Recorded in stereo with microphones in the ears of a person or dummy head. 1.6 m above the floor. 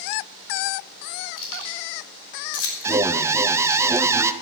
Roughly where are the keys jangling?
Left.